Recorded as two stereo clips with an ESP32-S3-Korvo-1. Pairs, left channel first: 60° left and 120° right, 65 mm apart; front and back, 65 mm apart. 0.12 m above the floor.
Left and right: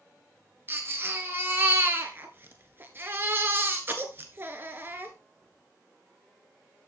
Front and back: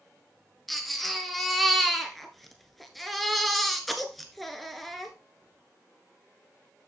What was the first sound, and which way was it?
A baby crying, 85° right.